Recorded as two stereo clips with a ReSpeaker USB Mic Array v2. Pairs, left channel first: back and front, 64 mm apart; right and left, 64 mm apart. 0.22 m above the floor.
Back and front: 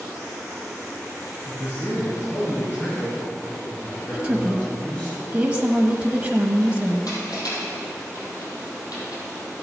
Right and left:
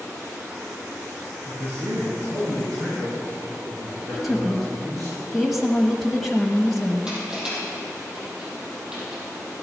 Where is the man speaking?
140° left, 3.5 m; by 5.1 s 110° left, 8 m.